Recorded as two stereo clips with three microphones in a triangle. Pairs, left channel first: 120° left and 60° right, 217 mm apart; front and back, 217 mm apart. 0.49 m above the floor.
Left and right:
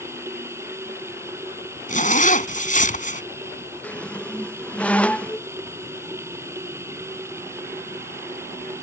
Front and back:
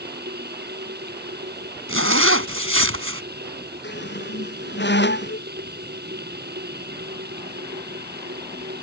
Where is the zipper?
170° left.